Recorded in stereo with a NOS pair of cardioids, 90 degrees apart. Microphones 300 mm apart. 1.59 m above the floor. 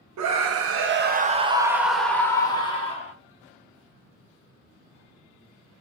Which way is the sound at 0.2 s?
65° right.